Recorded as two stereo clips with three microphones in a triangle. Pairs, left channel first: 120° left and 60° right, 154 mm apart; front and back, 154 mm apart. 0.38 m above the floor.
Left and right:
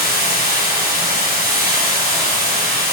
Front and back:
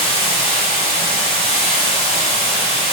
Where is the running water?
55° right, 1.8 m.